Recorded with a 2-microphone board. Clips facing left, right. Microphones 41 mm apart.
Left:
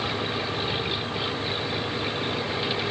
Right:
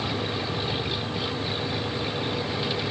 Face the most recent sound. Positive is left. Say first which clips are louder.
# left 1 dB
turn(degrees=15)  # may be behind; listen again after turning